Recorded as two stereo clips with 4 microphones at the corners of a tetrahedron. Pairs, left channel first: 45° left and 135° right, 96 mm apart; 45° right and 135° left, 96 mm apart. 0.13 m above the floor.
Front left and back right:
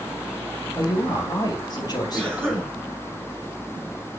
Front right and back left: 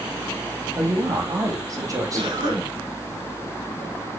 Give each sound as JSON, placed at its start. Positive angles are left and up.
{"t": 0.8, "sound": "a woman speaking", "azimuth_deg": 85, "distance_m": 3.5}
{"t": 2.1, "sound": "a cough", "azimuth_deg": 155, "distance_m": 6.5}